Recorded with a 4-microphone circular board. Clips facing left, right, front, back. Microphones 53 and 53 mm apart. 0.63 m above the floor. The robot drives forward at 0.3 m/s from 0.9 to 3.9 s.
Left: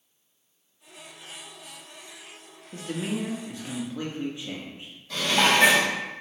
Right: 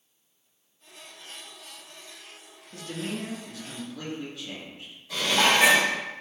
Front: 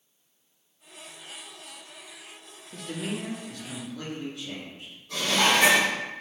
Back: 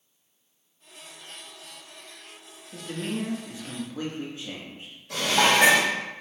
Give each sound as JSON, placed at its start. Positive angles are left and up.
{"t": 2.7, "sound": "a man speaking", "azimuth_deg": 90, "distance_m": 0.6}
{"t": 5.1, "sound": "dishes clattering", "azimuth_deg": -175, "distance_m": 1.4}